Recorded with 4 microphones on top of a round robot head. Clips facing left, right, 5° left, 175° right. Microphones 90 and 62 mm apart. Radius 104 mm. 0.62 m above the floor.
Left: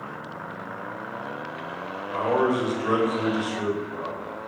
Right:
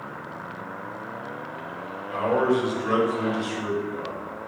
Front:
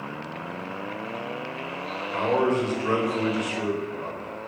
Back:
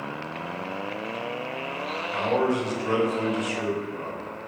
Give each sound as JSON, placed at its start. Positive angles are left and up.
{"t": 2.1, "sound": "a man speaking", "azimuth_deg": 35, "distance_m": 1.6}